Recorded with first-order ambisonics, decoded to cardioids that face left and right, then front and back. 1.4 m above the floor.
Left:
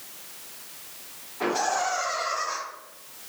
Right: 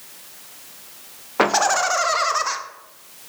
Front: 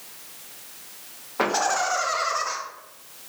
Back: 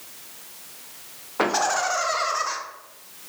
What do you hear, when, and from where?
1.4 s laughter: 95° right, 0.5 m